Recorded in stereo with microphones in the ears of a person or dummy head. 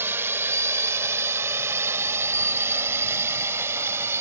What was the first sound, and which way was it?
A drone, 10° right (ahead or behind).